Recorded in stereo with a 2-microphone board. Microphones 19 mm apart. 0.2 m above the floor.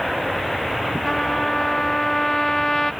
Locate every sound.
1.1 s a trumpet: 15° left (ahead or behind)